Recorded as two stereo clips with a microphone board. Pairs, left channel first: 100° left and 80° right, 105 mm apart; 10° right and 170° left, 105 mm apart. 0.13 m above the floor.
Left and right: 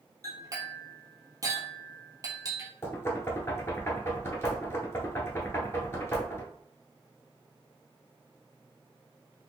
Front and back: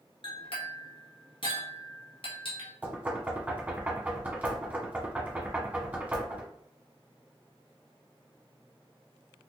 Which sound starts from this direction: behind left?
Knocking, at 2.8 s.